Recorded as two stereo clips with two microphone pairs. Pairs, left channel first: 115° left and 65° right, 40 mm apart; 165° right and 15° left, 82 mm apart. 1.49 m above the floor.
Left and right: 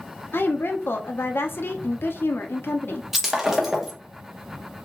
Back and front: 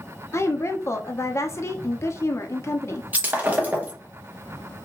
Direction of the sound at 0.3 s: 135° left.